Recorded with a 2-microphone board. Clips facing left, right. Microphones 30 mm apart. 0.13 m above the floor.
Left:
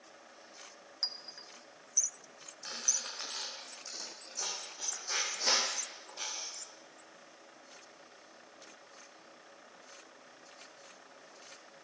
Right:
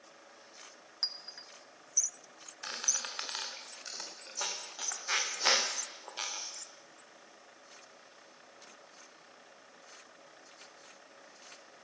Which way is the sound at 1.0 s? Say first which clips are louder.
Right 1 dB; 10° right (ahead or behind).